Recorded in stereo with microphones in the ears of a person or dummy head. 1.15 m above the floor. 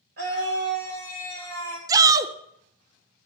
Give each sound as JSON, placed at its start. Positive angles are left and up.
{"t": 0.2, "sound": "a scream", "side_deg": -55, "distance_m": 3.5}
{"t": 1.9, "sound": "a shout", "side_deg": -20, "distance_m": 0.6}